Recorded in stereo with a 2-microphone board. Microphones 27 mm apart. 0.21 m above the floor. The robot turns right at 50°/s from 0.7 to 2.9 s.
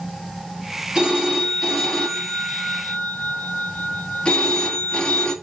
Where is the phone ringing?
30° right, 1.1 m; by 5.3 s 70° left, 1.1 m.